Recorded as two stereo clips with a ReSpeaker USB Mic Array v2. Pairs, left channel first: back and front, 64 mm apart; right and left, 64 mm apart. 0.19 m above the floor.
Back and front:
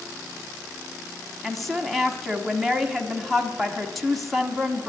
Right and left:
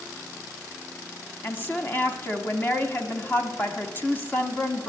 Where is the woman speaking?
90° right, 1.3 m.